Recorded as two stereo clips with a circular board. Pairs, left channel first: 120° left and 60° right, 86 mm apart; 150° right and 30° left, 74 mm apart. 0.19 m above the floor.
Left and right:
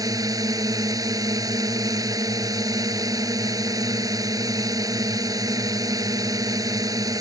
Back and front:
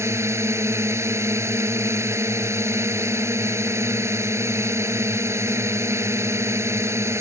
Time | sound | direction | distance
0.0 | a drone | 20° right | ?